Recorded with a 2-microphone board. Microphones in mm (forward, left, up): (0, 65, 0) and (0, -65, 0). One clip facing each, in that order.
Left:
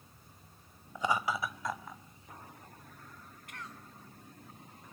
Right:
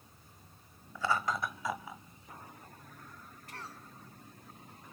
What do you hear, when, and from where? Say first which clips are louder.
0.9 s laughter: left 1 dB; 20° left (ahead or behind), 0.9 m; by 2.0 s 10° right (ahead or behind), 1.7 m
3.5 s a cough: right 1 dB; 35° right (ahead or behind), 2.5 m